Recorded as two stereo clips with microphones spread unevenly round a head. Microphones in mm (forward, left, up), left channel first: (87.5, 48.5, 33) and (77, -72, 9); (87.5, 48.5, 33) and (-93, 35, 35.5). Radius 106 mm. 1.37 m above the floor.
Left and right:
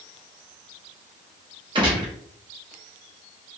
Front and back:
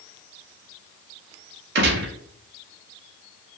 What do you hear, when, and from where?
1.8 s a gunshot: 165° right, 0.7 m